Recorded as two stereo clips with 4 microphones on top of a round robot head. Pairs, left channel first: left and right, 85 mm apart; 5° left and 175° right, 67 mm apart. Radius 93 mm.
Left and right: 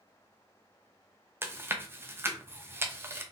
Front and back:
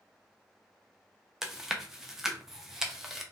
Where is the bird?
I don't hear a bird.